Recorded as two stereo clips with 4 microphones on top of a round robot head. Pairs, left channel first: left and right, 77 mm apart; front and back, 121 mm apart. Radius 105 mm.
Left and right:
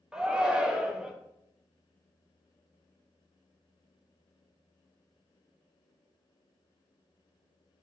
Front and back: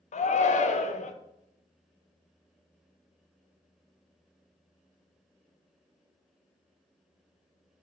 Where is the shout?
10° right, 0.8 m.